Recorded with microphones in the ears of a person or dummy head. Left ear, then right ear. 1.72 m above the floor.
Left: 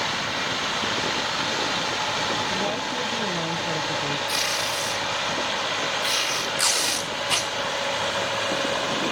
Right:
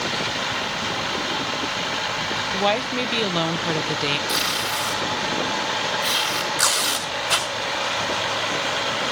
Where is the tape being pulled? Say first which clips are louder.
Right 2 dB; centre (ahead or behind), 3 m.